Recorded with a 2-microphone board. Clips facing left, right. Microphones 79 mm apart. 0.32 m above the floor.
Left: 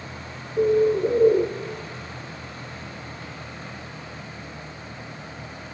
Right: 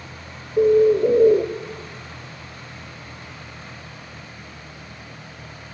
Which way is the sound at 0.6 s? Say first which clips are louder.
Right 4 dB; 45° right (ahead or behind).